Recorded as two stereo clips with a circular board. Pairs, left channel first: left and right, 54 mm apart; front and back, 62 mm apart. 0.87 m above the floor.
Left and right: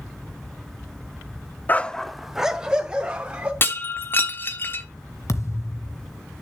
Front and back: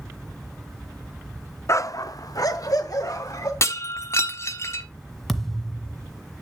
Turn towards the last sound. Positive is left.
turn(degrees=85)